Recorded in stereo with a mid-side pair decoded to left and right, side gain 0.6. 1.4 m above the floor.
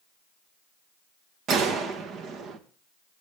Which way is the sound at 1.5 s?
55° right.